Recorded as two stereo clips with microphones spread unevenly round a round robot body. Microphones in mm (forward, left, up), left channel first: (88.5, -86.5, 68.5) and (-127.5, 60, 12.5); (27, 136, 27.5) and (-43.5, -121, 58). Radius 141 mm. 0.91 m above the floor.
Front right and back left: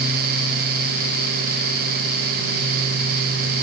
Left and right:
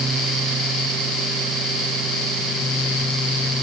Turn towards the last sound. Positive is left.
No sound to turn to.